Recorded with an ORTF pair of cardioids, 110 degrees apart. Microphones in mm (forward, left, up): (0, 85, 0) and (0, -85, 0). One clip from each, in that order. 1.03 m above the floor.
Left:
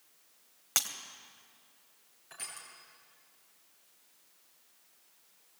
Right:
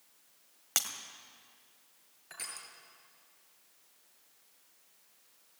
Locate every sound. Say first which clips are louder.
0.8 s breaking glass: left 1 dB; straight ahead, 2.5 m
2.3 s crushing: right 1 dB; 30° right, 6.5 m